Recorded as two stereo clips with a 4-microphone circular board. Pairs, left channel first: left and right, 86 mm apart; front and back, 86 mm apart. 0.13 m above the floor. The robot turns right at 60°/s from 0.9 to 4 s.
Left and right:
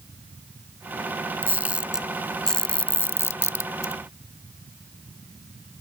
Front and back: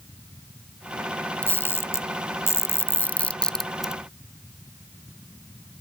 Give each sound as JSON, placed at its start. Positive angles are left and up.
{"t": 1.4, "sound": "a camera shutter", "azimuth_deg": -50}